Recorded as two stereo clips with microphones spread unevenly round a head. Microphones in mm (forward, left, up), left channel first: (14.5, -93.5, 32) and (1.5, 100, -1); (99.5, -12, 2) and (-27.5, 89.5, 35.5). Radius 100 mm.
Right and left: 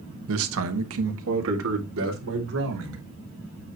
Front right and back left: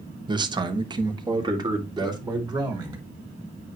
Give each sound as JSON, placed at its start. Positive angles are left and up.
{"t": 0.3, "sound": "a man speaking", "azimuth_deg": 80, "distance_m": 1.2}